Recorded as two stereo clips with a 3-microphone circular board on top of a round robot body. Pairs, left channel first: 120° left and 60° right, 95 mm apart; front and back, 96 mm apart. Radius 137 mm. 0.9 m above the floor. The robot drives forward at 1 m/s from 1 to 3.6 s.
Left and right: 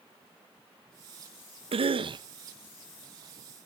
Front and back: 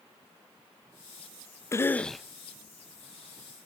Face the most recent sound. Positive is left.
turn(degrees=-150)